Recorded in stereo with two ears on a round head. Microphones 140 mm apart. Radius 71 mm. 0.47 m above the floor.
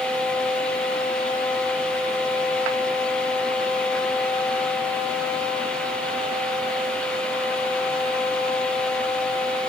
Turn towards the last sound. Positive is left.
No sound to turn to.